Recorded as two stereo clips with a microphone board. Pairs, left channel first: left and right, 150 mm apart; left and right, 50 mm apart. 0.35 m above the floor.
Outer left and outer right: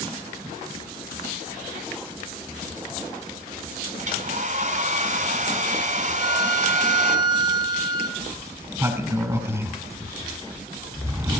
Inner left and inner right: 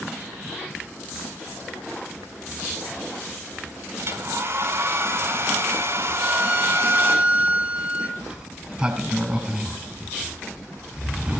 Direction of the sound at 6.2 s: 30° right (ahead or behind).